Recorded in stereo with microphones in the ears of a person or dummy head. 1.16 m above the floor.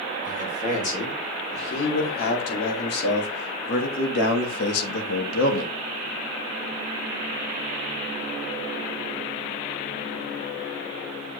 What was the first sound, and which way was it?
A man speaking, 40° left (ahead or behind).